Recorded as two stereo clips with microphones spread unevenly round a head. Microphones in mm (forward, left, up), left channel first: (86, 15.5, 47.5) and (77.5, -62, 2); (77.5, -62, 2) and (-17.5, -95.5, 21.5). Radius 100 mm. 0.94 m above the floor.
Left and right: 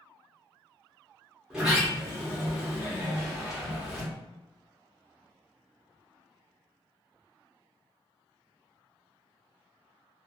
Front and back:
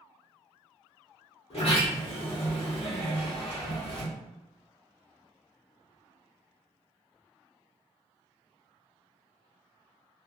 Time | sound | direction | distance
1.5 | a sliding door | 5° right | 1.0 m